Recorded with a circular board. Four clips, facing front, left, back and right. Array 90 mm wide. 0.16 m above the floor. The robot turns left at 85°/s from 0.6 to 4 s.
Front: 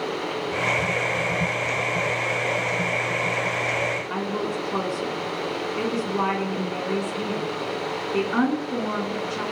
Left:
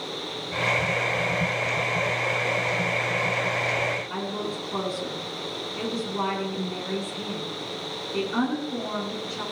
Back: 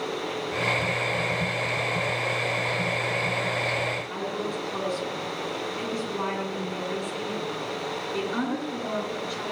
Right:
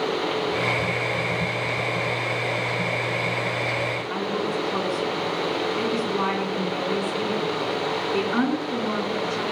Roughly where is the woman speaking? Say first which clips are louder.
Right 5 dB, front 4 dB; ahead right.